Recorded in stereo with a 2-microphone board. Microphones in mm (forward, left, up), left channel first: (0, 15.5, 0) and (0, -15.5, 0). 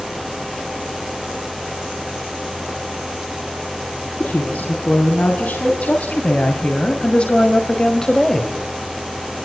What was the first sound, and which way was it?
A woman speaking, 75° left (ahead or behind).